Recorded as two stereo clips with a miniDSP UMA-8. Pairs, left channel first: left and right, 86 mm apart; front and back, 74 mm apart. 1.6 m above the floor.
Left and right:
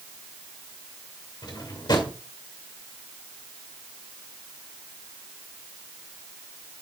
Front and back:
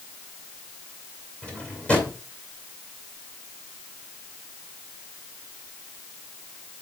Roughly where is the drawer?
Left.